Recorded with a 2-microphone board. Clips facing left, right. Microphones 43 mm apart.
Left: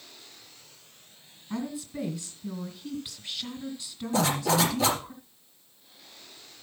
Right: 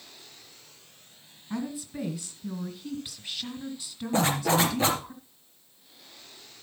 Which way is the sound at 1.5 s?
5° right (ahead or behind).